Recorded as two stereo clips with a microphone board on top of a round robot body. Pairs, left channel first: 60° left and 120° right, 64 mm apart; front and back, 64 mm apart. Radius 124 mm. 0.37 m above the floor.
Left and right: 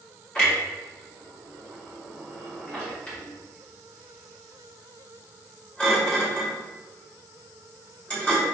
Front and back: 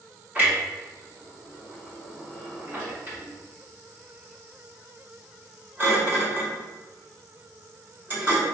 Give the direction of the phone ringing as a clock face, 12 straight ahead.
No phone ringing in this recording.